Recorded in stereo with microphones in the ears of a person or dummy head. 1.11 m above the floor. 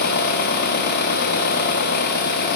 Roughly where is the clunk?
No clunk in this recording.